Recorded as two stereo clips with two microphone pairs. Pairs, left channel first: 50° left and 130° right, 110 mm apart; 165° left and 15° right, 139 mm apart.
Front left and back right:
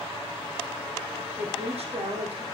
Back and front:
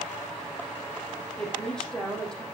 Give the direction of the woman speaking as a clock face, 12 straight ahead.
4 o'clock.